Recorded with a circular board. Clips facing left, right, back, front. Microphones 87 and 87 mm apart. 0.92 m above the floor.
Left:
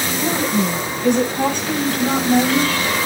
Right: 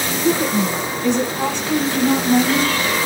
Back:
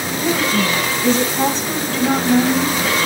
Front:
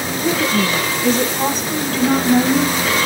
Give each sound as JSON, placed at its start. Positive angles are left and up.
{"t": 0.2, "sound": "a woman speaking", "azimuth_deg": 125, "distance_m": 9.0}